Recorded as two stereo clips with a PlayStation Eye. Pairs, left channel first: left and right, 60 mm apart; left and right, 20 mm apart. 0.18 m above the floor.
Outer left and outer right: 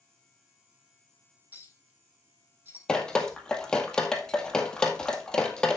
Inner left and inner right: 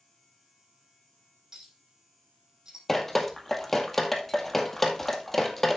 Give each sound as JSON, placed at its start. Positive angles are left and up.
{"t": 1.5, "sound": "a clink", "side_deg": -30, "distance_m": 6.5}
{"t": 2.9, "sound": "dripping", "side_deg": 15, "distance_m": 1.9}